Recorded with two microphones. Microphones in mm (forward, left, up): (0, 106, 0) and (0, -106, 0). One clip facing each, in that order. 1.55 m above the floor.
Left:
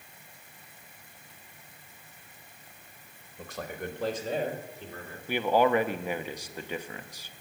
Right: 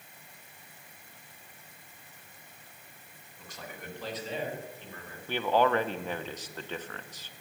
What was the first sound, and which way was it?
A man speaking, 60° left (ahead or behind).